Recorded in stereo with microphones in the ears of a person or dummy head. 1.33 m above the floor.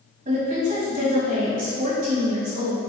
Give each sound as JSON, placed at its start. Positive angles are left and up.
{"t": 0.2, "sound": "a woman speaking", "side_deg": -40, "distance_m": 1.8}